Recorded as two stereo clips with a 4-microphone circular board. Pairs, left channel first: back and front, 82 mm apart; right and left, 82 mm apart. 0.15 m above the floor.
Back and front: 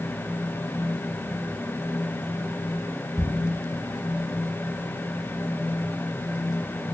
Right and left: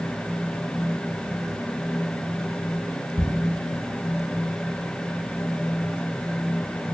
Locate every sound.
3.2 s ticking: 95° right, 0.5 m